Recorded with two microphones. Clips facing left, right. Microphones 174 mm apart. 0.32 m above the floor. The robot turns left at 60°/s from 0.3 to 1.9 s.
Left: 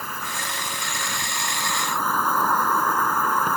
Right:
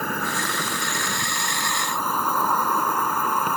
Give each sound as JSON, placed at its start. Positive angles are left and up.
{"t": 0.0, "sound": "an insect", "azimuth_deg": -70}